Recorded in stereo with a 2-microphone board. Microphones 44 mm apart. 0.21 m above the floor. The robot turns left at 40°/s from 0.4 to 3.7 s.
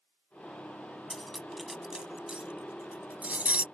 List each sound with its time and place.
1.1 s cutlery clinking: 5° left (ahead or behind); by 3.6 s 40° right (ahead or behind)